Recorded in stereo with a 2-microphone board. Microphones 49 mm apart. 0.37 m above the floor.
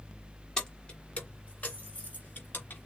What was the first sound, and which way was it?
Keys jangling, 15° left (ahead or behind).